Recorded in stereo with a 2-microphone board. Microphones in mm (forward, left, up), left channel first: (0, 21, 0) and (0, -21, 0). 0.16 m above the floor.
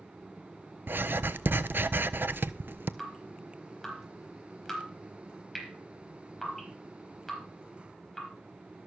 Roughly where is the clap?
I don't hear a clap.